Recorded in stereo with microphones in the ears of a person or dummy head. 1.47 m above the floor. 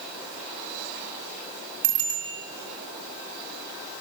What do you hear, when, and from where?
1.8 s a bicycle bell: 85° right, 7 m